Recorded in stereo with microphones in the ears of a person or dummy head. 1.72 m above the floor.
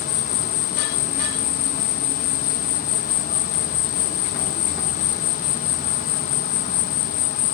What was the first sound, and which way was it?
An insect, 50° left (ahead or behind).